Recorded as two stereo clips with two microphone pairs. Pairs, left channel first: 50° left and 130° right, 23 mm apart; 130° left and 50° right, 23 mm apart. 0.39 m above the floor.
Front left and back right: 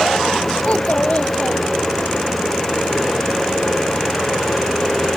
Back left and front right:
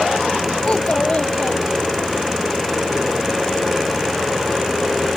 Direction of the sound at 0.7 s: 85° left.